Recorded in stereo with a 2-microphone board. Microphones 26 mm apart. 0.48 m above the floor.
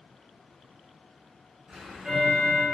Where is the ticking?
60° right (ahead or behind), 2.0 m.